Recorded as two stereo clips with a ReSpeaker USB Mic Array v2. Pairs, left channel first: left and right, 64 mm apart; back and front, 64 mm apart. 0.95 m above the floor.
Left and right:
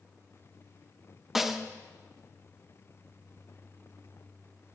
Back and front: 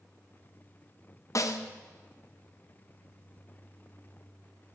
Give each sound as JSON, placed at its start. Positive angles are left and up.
{"t": 1.4, "sound": "a snare drum", "azimuth_deg": -175, "distance_m": 0.6}